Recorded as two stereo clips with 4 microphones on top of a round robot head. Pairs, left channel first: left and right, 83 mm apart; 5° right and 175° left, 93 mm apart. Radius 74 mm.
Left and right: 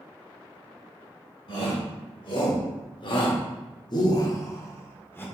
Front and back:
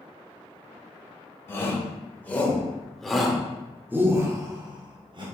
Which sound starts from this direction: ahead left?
A shout, at 1.5 s.